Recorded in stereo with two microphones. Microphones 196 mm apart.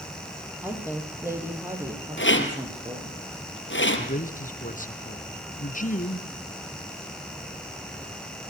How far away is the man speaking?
About 2.5 m.